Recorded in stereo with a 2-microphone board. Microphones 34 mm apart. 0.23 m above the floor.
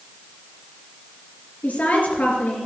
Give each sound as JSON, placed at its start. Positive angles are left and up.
{"t": 1.6, "sound": "a woman speaking", "side_deg": 45, "distance_m": 3.5}